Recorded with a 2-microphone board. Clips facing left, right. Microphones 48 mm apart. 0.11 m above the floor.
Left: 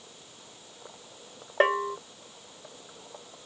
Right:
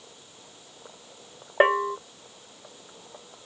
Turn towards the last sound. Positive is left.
turn(degrees=-15)  # may be behind; listen again after turning